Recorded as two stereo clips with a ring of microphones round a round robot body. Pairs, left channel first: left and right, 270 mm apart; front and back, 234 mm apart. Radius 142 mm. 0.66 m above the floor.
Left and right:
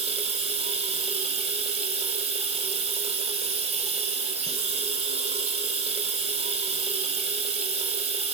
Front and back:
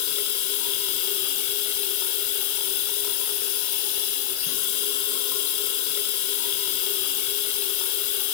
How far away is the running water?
About 1.4 m.